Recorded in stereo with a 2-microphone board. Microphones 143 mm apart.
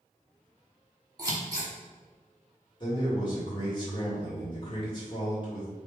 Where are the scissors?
25° right (ahead or behind), 1.7 m.